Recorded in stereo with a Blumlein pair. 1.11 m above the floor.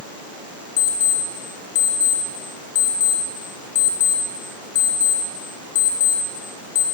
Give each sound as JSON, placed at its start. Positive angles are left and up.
{"t": 0.8, "sound": "an alarm clock", "azimuth_deg": 50, "distance_m": 9.0}